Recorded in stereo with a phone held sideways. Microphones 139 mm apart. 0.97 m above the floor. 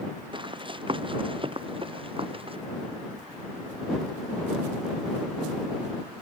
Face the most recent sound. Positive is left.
turn(degrees=-40)  # may be behind; listen again after turning